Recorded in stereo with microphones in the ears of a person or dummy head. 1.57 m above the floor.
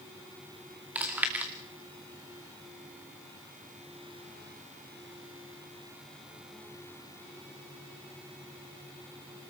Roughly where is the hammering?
I don't hear hammering.